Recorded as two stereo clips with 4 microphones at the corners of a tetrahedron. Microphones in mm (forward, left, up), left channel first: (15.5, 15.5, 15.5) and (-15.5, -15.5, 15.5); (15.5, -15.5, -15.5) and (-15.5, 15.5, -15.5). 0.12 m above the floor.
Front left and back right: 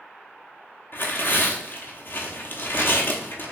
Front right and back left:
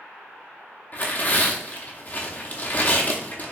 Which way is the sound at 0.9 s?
10° left.